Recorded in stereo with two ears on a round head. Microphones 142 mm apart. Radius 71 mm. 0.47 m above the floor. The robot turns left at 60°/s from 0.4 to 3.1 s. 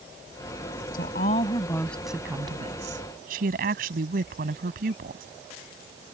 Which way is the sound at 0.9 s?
65° left.